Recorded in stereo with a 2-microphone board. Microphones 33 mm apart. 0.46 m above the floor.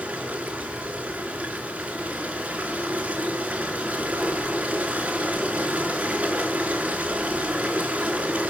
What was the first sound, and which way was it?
Running water, 40° right (ahead or behind).